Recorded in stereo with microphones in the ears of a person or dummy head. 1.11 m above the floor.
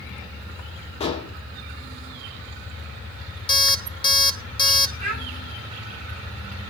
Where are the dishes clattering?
25° left (ahead or behind), 1.9 m.